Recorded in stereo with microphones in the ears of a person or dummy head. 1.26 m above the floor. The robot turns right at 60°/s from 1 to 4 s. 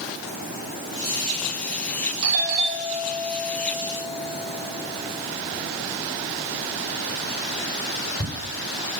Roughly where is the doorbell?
Right.